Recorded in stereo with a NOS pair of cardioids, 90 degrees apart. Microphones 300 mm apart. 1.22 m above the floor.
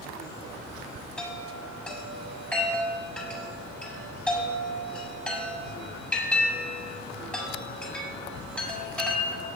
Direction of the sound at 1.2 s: 5° left.